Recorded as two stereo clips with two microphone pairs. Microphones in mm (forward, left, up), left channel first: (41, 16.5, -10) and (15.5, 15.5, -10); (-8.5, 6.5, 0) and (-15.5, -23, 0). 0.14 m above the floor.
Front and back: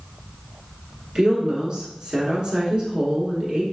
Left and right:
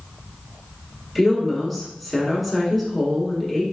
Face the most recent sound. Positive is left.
turn(degrees=170)